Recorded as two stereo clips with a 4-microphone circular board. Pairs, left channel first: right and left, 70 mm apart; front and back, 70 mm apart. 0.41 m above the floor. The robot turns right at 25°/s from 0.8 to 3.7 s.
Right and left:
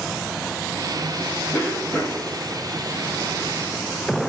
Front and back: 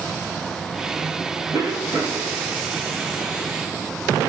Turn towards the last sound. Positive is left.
turn(degrees=-115)